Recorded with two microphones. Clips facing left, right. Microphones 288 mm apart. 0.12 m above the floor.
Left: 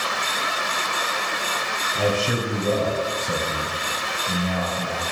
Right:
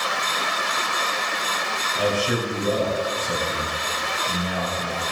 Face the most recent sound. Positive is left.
turn(degrees=25)  # may be behind; listen again after turning